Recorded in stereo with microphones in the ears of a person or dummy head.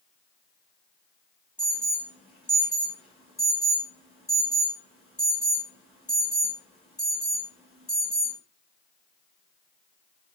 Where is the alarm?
Centre (ahead or behind), 9.5 m.